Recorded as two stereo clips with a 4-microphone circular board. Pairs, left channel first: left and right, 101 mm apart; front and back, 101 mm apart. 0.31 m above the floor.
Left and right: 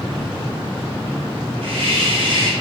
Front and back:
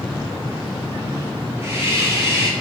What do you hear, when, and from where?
1.6 s a hiss: 115° right, 1.9 m